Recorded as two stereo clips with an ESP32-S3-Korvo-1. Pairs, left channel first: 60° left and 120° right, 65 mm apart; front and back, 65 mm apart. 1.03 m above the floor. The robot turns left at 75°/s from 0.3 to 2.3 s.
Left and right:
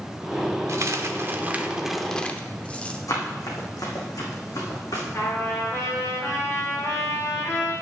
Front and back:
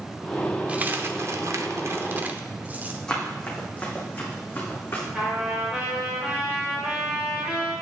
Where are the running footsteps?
75° left, 3 m; by 5.0 s 55° left, 4 m.